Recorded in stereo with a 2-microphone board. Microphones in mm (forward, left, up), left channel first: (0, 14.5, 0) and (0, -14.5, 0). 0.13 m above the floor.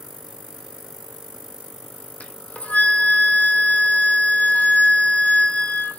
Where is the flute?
60° left (ahead or behind), 0.7 m.